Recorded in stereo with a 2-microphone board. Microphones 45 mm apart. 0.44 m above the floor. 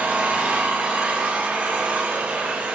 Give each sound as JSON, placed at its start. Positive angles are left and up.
{"t": 0.0, "sound": "an engine running", "side_deg": -35, "distance_m": 3.5}